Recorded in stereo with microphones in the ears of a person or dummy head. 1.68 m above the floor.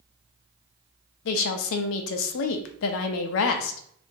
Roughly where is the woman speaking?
Left.